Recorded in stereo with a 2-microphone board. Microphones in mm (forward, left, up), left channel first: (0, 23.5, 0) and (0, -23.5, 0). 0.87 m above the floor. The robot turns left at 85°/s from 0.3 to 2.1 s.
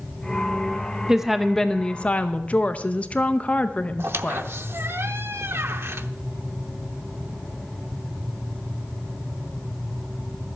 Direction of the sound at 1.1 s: 160° right.